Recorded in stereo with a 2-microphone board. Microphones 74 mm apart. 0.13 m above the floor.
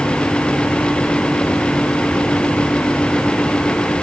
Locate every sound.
Only background noise.